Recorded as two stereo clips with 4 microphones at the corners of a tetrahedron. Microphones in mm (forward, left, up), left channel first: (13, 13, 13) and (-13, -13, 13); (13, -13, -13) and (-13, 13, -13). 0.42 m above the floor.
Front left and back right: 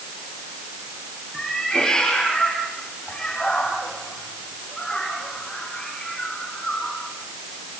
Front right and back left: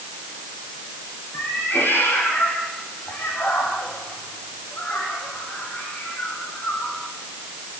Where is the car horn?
I don't hear a car horn.